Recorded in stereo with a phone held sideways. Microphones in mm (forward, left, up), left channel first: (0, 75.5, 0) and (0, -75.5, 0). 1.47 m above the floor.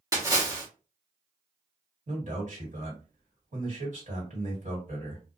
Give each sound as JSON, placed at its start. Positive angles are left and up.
{"t": 0.1, "sound": "a splash", "side_deg": -25, "distance_m": 1.0}
{"t": 2.1, "sound": "a man speaking", "side_deg": -55, "distance_m": 1.8}